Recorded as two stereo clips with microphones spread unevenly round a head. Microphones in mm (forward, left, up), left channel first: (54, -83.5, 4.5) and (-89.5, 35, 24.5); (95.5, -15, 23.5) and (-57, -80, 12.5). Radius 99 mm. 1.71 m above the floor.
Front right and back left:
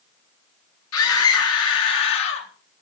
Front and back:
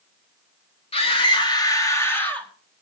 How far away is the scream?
About 4 m.